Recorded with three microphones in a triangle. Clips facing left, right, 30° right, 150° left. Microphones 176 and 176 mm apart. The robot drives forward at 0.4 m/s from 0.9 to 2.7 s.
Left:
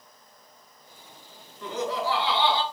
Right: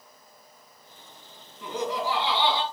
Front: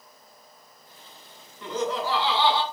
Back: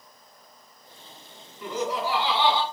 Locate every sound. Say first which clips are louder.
1.6 s laughter: even, even; 135° right, 1.5 m; by 2.6 s 155° right, 1.7 m